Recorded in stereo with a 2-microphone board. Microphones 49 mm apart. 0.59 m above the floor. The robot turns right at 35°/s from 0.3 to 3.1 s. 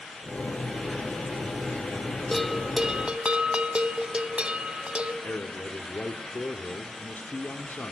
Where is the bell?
Centre (ahead or behind), 0.9 m; by 5.1 s 25° right (ahead or behind), 0.9 m.